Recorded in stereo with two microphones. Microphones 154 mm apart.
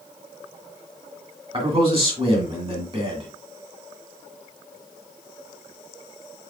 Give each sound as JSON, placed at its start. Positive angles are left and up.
{"t": 1.5, "sound": "a man speaking", "side_deg": -40, "distance_m": 2.5}